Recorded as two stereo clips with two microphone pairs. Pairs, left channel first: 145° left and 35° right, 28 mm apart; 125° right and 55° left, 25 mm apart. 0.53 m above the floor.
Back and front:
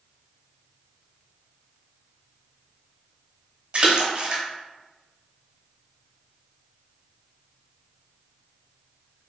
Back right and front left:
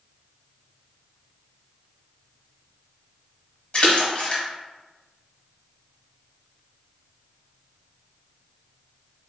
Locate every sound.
3.7 s a splash: 80° right, 0.7 m